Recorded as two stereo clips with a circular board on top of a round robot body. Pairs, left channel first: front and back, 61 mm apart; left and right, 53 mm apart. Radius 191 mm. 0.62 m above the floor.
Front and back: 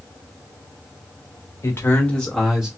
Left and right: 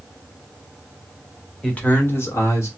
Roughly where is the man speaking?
Ahead.